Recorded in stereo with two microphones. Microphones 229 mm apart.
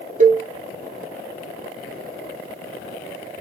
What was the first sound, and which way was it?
A cowbell, 35° right (ahead or behind).